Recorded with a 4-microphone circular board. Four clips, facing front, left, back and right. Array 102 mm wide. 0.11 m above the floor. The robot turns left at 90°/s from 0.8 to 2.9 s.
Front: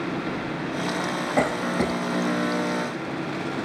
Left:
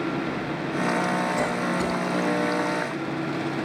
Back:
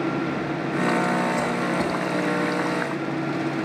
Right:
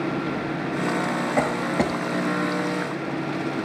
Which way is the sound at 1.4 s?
45° right.